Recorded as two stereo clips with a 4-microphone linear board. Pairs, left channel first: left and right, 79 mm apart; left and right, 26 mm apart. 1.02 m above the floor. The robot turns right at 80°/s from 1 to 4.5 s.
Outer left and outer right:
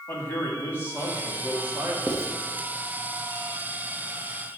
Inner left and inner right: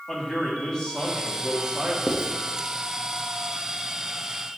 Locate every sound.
0.1 s a man speaking: 155° left, 1.6 m; by 2.0 s 130° right, 1.6 m
2.1 s writing: 25° right (ahead or behind), 0.8 m; by 2.3 s 40° right (ahead or behind), 0.8 m